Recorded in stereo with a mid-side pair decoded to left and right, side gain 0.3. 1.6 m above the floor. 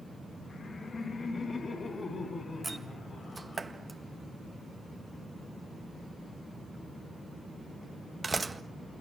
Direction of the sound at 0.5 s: 60° left.